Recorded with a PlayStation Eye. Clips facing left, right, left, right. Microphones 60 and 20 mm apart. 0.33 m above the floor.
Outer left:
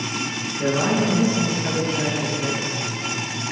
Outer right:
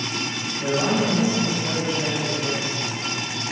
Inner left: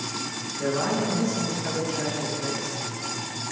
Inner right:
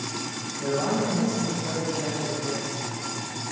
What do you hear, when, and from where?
0.6 s a man speaking: 70° left (ahead or behind), 5 m